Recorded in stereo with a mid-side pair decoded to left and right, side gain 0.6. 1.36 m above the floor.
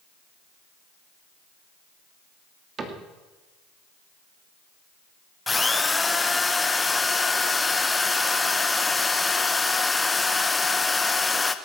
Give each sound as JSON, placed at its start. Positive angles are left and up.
{"t": 2.8, "sound": "a cupboard door", "azimuth_deg": -35, "distance_m": 2.5}
{"t": 5.5, "sound": "a drill", "azimuth_deg": 15, "distance_m": 1.1}